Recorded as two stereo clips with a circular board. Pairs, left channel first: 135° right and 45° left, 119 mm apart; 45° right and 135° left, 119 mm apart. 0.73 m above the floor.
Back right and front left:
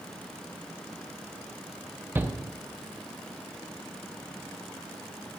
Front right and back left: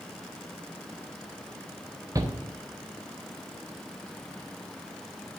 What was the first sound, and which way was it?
A shout, 100° left.